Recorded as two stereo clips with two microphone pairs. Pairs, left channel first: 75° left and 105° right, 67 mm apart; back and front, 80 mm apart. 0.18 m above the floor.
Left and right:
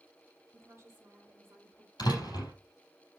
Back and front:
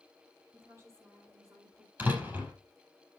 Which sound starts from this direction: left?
A door slam, at 2.0 s.